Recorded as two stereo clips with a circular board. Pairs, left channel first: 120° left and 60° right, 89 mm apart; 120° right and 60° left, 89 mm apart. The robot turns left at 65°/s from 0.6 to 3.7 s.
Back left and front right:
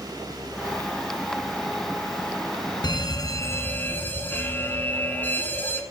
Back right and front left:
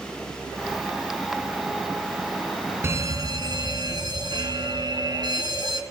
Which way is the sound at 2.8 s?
115° left.